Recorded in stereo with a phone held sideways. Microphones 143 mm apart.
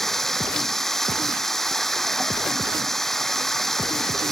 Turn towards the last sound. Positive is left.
turn(degrees=0)  # may be behind; listen again after turning